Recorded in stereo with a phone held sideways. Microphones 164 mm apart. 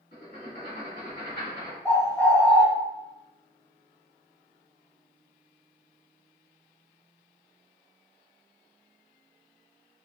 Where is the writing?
60° left (ahead or behind), 1.9 m.